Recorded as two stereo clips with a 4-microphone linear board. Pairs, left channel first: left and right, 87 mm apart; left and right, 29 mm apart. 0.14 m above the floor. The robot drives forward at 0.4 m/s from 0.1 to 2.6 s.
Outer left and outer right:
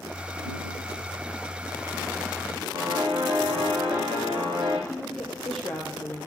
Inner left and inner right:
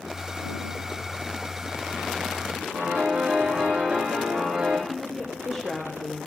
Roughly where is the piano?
Right.